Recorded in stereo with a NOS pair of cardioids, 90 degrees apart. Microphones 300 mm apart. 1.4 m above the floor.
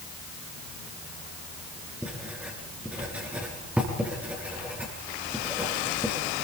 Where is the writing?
5° right, 7 m.